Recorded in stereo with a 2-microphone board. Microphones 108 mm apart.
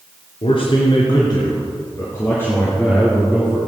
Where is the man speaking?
60° left (ahead or behind), 3 m; by 3.6 s 5° left (ahead or behind), 4 m.